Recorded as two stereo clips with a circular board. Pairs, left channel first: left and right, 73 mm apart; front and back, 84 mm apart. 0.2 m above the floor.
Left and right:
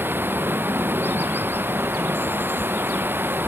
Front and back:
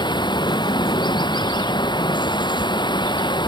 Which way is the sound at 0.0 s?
30° right.